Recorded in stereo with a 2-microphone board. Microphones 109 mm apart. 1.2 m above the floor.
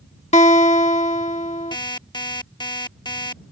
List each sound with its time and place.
0.3 s a guitar: 80° left
1.7 s an alarm clock: 40° left (ahead or behind)